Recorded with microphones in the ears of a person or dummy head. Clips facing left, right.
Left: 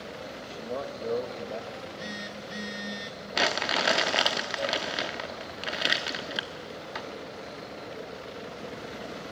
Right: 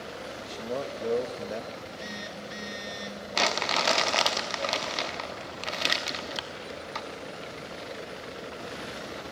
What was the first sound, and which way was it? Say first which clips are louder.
A man speaking: right 2 dB; 20° right (ahead or behind).